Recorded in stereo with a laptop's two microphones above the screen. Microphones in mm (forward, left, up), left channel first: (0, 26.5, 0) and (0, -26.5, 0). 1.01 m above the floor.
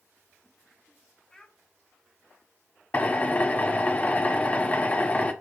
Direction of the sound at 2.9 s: 30° left (ahead or behind).